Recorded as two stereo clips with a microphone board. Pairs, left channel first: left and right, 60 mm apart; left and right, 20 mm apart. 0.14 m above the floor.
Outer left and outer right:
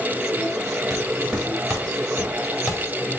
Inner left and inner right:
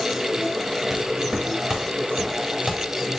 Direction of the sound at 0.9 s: 10° right (ahead or behind).